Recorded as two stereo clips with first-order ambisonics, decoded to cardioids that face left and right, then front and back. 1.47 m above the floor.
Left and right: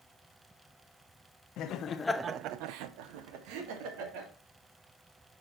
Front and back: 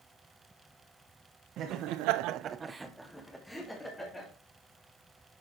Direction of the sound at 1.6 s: 135° left.